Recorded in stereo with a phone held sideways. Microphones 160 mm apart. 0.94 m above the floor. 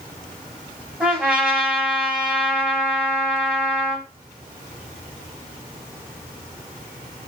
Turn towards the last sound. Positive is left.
turn(degrees=-5)  # may be behind; listen again after turning